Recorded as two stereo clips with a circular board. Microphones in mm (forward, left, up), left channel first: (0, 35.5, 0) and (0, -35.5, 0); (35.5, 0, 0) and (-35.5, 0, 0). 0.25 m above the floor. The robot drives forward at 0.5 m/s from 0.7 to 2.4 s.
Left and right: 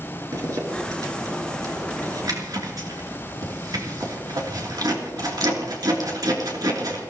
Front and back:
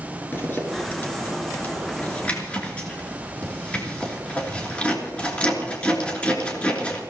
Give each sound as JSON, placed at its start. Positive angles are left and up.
{"t": 0.3, "sound": "a zipper", "azimuth_deg": -60, "distance_m": 3.5}